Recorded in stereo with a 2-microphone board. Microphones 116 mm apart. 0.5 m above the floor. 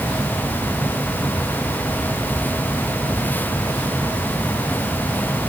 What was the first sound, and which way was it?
Only background noise.